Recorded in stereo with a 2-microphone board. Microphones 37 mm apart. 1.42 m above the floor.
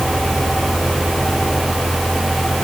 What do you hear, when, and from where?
Only background noise.